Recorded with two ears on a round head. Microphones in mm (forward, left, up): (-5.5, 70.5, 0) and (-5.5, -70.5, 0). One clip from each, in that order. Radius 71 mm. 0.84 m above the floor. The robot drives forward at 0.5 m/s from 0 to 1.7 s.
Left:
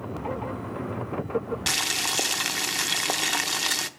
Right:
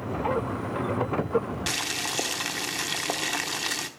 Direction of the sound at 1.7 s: 20° left (ahead or behind).